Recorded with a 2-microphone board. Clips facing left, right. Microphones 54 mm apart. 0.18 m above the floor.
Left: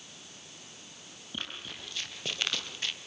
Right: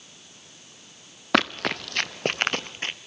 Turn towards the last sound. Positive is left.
turn(degrees=-35)  # may be behind; listen again after turning